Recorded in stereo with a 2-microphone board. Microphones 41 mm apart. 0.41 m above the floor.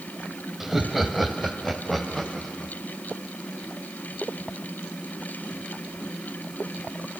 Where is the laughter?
10° right (ahead or behind), 2.0 m; by 2.7 s 5° left (ahead or behind), 3.5 m.